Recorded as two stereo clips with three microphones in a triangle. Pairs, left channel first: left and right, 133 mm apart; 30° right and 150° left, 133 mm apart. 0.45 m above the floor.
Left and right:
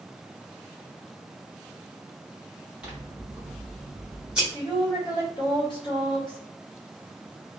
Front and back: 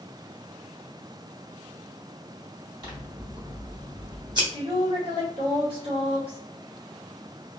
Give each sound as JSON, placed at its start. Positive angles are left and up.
{"t": 2.8, "sound": "scissors", "azimuth_deg": -170, "distance_m": 1.2}
{"t": 4.5, "sound": "a woman speaking", "azimuth_deg": 125, "distance_m": 1.8}